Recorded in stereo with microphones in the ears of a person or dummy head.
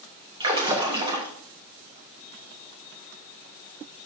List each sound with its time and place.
0.4 s a splash: 25° right (ahead or behind), 2.5 m